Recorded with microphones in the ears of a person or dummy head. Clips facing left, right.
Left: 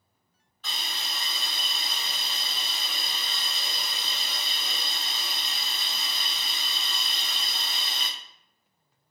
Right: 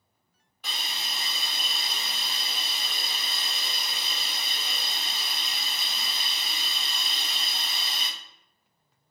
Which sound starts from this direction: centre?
A hiss, at 0.6 s.